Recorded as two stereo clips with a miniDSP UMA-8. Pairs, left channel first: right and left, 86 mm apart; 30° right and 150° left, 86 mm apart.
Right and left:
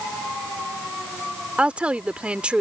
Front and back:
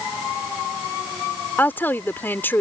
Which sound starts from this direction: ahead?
A woman speaking, at 1.6 s.